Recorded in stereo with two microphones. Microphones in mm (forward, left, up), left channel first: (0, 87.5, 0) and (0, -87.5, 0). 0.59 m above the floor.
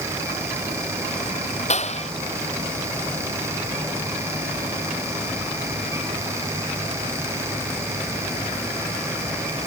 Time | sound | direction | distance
1.7 | a clap | 40° left (ahead or behind) | ?